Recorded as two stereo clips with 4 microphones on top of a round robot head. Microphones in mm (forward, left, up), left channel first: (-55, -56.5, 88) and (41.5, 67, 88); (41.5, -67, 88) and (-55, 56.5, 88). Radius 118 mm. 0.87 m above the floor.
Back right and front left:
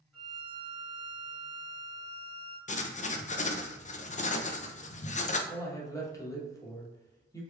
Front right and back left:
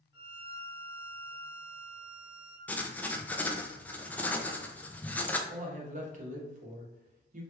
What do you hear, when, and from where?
0.1 s a violin: 40° right, 0.7 m
2.7 s writing: 130° right, 0.5 m
5.5 s a man speaking: 165° left, 1.0 m